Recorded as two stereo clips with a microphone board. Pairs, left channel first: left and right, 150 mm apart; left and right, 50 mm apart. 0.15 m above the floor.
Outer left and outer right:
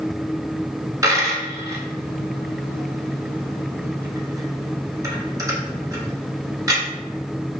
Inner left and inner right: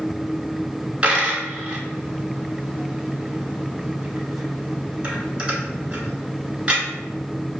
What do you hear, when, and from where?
1.0 s a dropped coin: 20° right (ahead or behind), 1.0 m